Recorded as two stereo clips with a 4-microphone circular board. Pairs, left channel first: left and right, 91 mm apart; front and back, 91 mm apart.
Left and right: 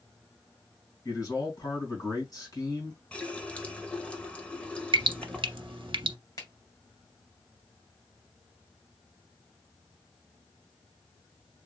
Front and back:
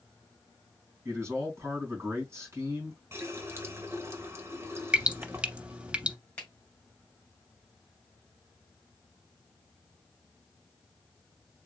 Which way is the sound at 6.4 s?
70° left.